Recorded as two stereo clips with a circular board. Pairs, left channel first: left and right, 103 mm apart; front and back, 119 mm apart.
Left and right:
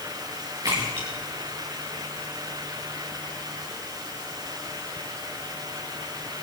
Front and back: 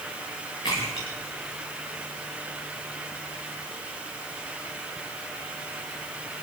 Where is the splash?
45° right, 9.5 m.